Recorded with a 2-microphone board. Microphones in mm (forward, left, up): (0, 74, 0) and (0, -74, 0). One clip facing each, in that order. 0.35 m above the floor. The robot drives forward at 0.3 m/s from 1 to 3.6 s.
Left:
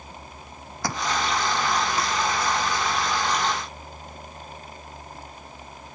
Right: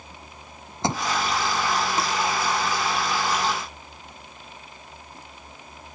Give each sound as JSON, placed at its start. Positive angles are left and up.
{"t": 0.8, "sound": "a thud", "side_deg": -25}